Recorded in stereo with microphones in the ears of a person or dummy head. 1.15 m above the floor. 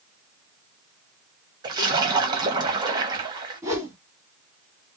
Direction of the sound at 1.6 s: 25° right (ahead or behind).